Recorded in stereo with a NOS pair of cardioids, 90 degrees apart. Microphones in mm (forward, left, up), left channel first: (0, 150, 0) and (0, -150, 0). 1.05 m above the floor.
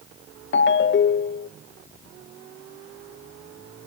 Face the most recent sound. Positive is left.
turn(degrees=40)